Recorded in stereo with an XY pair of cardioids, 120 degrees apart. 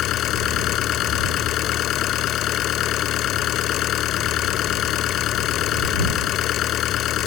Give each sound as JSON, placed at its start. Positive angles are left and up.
{"t": 0.0, "sound": "an engine running", "azimuth_deg": 65}